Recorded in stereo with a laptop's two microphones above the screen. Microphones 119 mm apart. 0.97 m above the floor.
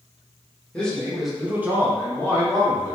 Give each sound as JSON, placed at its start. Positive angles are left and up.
{"t": 0.7, "sound": "a man speaking", "side_deg": 10, "distance_m": 1.5}